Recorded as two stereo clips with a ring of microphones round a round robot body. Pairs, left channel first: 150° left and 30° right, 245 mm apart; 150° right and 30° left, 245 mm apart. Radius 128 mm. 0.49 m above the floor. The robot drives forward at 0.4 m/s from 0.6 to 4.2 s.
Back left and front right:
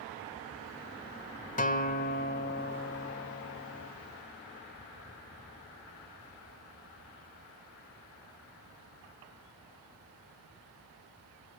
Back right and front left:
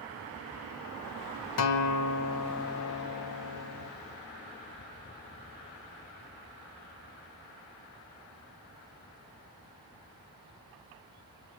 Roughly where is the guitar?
Behind right.